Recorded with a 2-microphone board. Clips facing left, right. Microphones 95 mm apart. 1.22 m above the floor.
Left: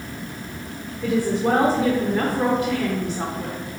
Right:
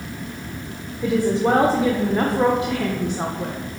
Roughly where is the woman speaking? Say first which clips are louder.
Right 2 dB; right.